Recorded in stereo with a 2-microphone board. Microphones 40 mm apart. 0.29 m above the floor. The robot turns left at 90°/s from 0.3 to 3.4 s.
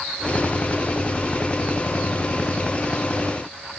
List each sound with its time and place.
Only background noise.